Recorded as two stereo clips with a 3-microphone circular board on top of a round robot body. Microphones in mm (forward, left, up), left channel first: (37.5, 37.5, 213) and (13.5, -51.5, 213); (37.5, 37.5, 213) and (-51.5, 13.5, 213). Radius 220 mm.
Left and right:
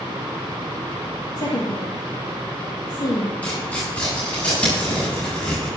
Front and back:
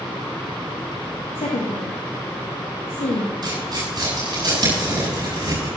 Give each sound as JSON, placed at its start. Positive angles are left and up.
{"t": 1.4, "sound": "a woman speaking", "azimuth_deg": 30, "distance_m": 2.0}
{"t": 3.4, "sound": "tearing paper", "azimuth_deg": 150, "distance_m": 8.0}